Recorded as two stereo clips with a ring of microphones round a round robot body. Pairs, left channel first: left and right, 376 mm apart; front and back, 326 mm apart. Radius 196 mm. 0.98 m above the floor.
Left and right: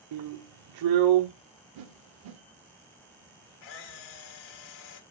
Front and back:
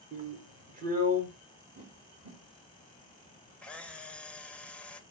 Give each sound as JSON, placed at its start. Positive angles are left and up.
{"t": 0.1, "sound": "a drill", "azimuth_deg": -115, "distance_m": 1.1}
{"t": 1.8, "sound": "a whoosh", "azimuth_deg": -105, "distance_m": 1.2}
{"t": 3.6, "sound": "a camera shutter", "azimuth_deg": 85, "distance_m": 1.4}